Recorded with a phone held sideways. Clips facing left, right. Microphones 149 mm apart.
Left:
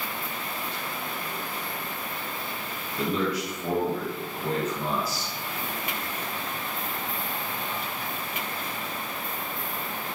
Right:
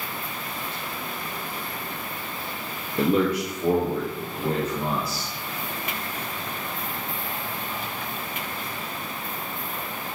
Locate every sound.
3.0 s a man speaking: 55° right (ahead or behind), 0.5 m; by 5.3 s 35° right (ahead or behind), 3 m